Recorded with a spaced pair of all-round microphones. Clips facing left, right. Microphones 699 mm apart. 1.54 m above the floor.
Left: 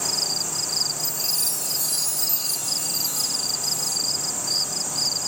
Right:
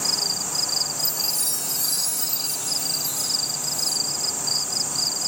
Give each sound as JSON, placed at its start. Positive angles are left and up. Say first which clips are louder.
{"t": 1.0, "sound": "a chime", "louder": "even", "side_deg": -20}